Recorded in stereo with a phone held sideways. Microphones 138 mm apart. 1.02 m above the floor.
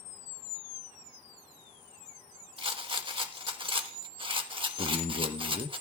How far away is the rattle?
About 1.3 m.